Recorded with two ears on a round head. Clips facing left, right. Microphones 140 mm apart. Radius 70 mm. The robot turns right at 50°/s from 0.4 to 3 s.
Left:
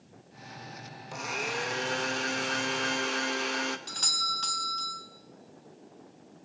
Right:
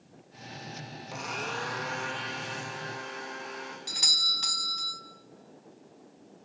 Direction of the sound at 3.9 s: 15° right (ahead or behind).